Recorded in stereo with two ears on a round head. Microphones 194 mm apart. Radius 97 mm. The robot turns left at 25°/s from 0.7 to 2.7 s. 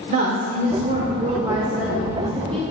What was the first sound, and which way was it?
A woman speaking, 140° right.